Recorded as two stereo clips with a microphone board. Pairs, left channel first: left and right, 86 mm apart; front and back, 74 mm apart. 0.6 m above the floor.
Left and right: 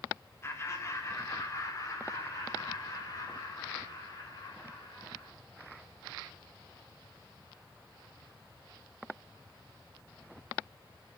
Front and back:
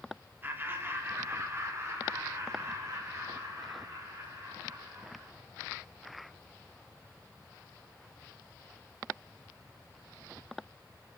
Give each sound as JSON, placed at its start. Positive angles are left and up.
{"t": 0.4, "sound": "laughter", "azimuth_deg": 130, "distance_m": 1.4}